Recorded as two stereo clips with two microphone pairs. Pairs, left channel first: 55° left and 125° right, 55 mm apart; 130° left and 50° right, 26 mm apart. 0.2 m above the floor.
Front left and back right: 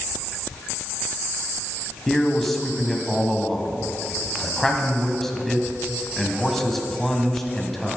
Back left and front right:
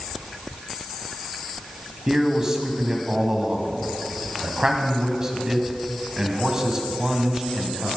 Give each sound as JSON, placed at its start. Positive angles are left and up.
{"t": 2.1, "sound": "a man speaking", "azimuth_deg": -25, "distance_m": 1.4}